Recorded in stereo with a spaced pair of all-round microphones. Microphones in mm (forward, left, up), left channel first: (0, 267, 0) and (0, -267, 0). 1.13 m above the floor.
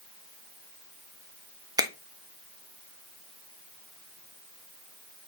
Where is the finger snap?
5° right (ahead or behind), 0.6 m.